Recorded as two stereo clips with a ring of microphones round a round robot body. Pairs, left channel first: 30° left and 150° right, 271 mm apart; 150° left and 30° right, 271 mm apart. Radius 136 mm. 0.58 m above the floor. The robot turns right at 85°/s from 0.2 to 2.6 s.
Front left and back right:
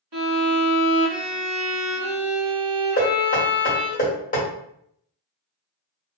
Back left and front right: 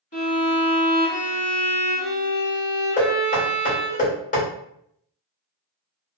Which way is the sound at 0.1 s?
145° right.